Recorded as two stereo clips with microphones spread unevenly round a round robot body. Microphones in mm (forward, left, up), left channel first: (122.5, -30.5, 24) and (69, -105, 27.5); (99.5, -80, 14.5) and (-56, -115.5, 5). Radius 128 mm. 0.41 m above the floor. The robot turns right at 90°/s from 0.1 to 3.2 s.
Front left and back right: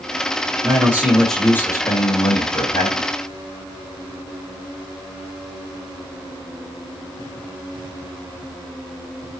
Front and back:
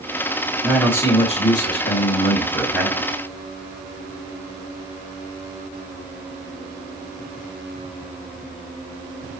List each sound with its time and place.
0.6 s a man speaking: 90° right, 2 m; by 3.1 s 130° left, 2 m